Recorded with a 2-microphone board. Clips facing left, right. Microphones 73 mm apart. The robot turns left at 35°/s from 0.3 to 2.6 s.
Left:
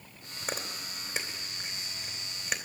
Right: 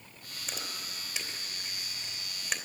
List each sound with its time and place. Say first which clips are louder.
0.4 s chewing: left 4 dB; 50° left (ahead or behind), 2.5 m; by 2.6 s centre (ahead or behind), 2.5 m